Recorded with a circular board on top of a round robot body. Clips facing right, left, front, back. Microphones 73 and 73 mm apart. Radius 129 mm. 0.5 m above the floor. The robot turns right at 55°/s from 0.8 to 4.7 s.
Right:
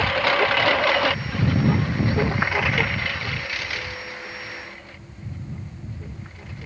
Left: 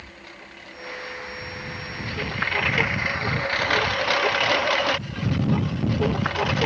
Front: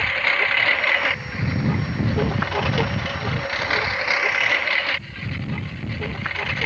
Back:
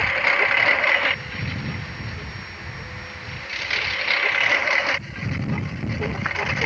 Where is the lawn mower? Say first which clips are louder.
Right 23 dB, back 1 dB; 95° right; by 6.7 s 100° left.